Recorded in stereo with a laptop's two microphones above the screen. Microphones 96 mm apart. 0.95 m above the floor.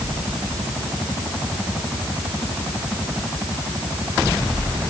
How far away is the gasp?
I don't hear a gasp.